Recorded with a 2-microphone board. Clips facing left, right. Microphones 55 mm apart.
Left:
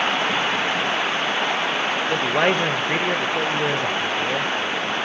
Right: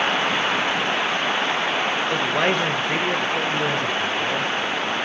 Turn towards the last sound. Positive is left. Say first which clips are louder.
# left 3 dB
turn(degrees=15)  # may be behind; listen again after turning